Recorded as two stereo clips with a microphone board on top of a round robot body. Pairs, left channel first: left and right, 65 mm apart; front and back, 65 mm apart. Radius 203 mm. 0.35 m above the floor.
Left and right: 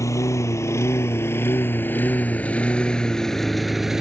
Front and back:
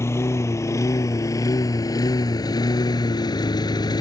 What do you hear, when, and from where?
0.0 s a lawn mower: 50° left; by 4.0 s 5° right